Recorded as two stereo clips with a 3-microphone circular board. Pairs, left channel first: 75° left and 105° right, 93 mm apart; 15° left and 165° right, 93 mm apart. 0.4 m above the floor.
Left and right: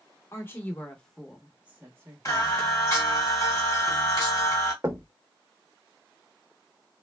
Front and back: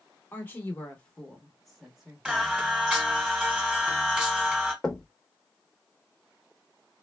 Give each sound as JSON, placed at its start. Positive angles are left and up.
{"t": 0.3, "sound": "a woman speaking", "azimuth_deg": 60, "distance_m": 1.0}
{"t": 2.2, "sound": "singing", "azimuth_deg": 115, "distance_m": 1.3}
{"t": 4.8, "sound": "knocking", "azimuth_deg": -65, "distance_m": 0.6}